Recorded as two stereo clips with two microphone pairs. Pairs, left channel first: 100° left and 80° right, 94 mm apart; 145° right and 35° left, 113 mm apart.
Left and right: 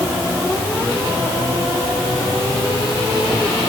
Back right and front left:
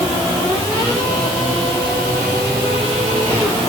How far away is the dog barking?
No dog barking in this recording.